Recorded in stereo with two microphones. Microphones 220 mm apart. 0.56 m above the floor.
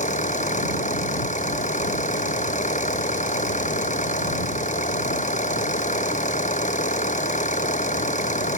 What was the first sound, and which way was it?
An engine running, 35° left (ahead or behind).